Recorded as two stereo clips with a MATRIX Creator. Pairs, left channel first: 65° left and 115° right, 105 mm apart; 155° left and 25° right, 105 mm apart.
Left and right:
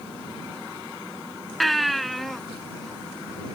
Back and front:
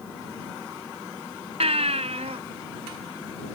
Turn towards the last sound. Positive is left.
turn(degrees=-20)